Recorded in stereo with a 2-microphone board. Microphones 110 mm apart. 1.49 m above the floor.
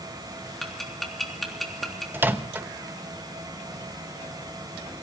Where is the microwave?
15° right (ahead or behind), 0.9 m.